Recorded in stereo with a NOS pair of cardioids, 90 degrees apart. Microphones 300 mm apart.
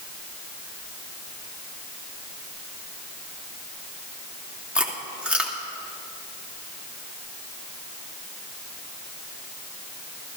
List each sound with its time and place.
4.8 s chewing: 5° right, 2.5 m